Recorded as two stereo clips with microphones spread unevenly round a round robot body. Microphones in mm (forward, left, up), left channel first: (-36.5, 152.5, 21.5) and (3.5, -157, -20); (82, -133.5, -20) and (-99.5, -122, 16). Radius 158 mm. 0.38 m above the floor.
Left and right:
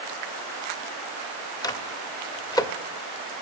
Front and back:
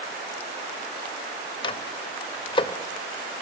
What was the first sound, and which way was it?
A microwave, 15° left.